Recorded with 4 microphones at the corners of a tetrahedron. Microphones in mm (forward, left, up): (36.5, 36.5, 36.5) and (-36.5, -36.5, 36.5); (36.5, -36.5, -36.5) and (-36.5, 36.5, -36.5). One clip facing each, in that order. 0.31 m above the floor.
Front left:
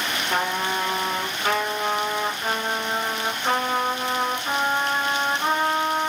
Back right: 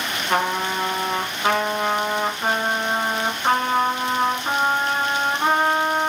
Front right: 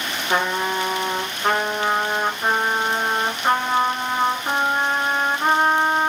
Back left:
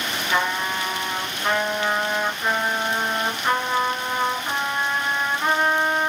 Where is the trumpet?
100° right, 0.9 m.